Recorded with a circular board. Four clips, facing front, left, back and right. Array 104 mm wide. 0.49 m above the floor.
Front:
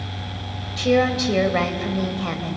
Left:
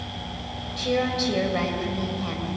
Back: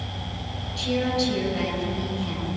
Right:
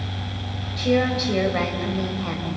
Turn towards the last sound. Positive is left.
turn(degrees=-10)